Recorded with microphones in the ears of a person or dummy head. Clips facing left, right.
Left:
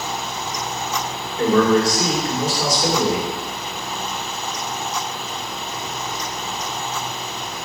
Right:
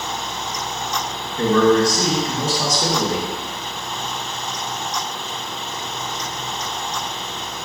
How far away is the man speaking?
About 1.2 m.